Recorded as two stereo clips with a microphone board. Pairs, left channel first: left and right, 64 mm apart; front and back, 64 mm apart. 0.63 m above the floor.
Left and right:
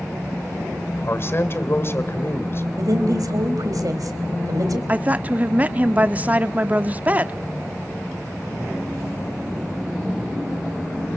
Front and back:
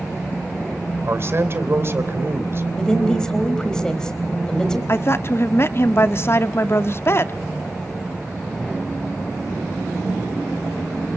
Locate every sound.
1.0 s a man speaking: 135° left, 2.5 m
2.8 s a woman speaking: 80° right, 3.5 m
4.9 s a woman speaking: 30° right, 0.8 m